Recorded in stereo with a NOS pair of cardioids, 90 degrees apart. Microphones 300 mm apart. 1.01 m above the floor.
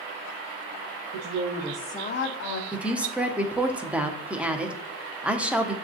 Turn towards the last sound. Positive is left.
turn(degrees=-5)